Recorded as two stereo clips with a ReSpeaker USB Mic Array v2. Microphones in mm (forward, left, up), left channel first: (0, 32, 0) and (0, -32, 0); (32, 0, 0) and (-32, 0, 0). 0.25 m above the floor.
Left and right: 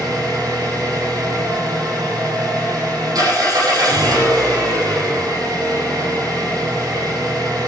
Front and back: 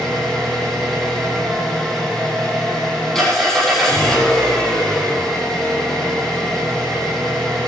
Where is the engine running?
85° right, 8.5 m.